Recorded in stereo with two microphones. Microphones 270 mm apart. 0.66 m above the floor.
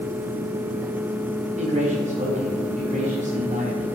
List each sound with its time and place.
1.6 s a man speaking: 25° right (ahead or behind), 2.5 m